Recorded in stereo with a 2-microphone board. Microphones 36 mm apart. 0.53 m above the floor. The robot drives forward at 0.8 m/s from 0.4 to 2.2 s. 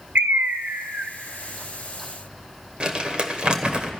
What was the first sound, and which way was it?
A bird, 75° right (ahead or behind).